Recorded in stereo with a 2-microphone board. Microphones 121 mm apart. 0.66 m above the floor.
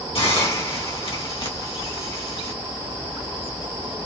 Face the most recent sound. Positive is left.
turn(degrees=55)  # may be behind; listen again after turning